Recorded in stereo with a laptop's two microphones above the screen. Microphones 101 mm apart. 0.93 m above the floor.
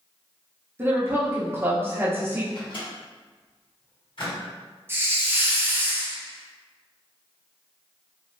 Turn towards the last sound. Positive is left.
turn(degrees=-25)  # may be behind; listen again after turning